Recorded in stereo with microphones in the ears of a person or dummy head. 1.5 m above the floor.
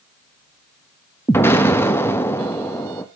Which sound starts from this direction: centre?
An explosion, at 1.3 s.